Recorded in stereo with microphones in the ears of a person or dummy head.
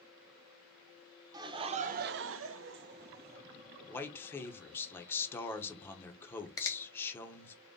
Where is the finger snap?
20° left (ahead or behind), 0.6 m.